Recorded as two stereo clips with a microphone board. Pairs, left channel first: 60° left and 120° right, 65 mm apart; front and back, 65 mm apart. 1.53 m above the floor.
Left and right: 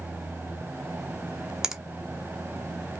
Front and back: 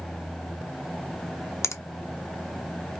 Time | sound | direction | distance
1.6 | a finger snap | 40° right | 0.6 m